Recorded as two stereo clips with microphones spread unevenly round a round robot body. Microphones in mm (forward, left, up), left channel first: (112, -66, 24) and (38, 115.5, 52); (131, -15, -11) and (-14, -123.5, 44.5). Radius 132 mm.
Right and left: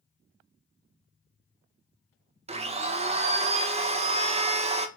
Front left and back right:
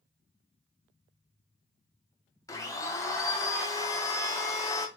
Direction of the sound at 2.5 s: 60° left.